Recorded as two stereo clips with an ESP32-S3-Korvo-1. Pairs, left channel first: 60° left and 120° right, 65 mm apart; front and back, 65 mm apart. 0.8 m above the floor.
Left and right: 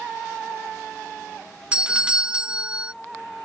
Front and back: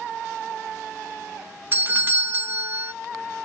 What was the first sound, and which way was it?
A doorbell, straight behind.